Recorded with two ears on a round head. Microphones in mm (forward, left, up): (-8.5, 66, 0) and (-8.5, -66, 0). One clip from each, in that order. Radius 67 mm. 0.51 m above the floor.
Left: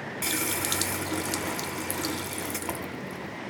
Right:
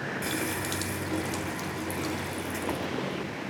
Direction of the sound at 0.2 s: 40° left (ahead or behind).